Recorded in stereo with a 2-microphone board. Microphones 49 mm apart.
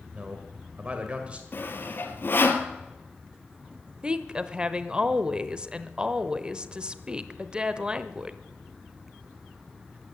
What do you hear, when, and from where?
0.1 s a man speaking: 30° right (ahead or behind), 1.7 m
1.5 s sawing: 50° left (ahead or behind), 1.6 m
4.0 s a woman speaking: 20° right (ahead or behind), 0.9 m